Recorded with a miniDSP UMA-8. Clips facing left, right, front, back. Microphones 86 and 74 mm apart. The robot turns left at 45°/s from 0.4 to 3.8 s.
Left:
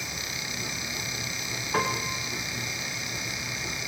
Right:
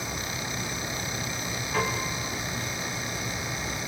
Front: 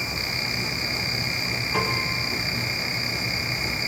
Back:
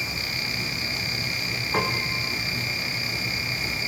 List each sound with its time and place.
1.7 s a piano: 135° left, 10 m; by 2.2 s 115° left, 10 m